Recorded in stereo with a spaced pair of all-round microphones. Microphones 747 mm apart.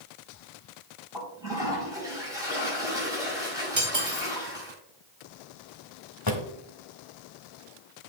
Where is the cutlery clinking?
80° right, 2.5 m.